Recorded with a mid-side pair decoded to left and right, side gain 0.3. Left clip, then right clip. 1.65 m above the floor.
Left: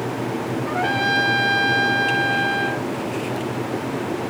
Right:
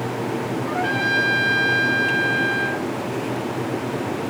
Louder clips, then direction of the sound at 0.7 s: Left 1 dB; 40° left.